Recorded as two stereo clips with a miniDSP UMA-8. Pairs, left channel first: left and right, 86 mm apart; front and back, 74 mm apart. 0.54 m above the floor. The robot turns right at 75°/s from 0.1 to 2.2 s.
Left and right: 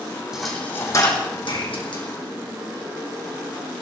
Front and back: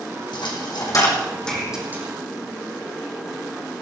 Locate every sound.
0.3 s a dropped coin: 10° right, 5 m; by 2.0 s 120° left, 5 m